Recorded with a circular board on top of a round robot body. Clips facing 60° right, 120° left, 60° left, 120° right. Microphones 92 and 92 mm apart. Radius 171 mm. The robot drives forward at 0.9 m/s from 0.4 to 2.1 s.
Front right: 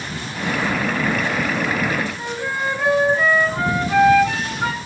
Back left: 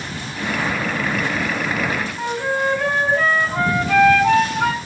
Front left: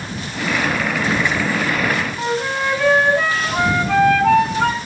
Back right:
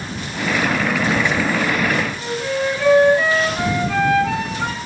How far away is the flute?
About 6.5 m.